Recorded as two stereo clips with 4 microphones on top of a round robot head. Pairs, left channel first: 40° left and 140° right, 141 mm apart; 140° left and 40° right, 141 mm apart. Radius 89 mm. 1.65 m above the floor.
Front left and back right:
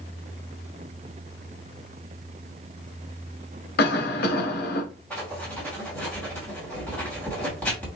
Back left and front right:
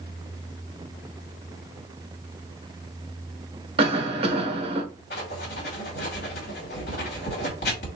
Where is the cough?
20° left, 2.0 m.